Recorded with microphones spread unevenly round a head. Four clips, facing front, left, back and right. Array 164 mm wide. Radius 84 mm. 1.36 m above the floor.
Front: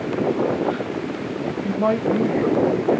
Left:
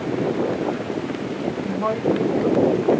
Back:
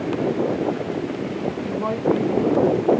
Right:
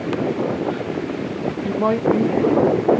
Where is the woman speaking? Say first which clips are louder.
Right 4 dB, front 2 dB; 55° right, 1.8 m.